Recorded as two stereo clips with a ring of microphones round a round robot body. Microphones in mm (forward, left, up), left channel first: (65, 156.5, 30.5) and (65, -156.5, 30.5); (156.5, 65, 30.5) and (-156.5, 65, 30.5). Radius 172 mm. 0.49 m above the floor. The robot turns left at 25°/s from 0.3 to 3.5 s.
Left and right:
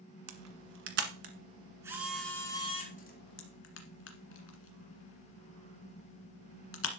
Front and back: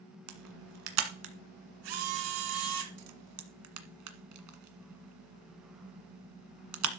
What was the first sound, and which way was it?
A camera shutter, 135° right.